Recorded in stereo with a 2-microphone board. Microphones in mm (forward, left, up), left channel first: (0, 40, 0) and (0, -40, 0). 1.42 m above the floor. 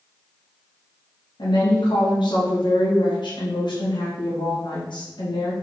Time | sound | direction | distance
1.4 | a woman speaking | 75° left (ahead or behind) | 2.5 m